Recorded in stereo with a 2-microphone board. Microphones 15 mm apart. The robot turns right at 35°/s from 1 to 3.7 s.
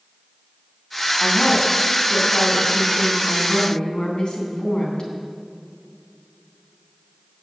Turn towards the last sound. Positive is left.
turn(degrees=115)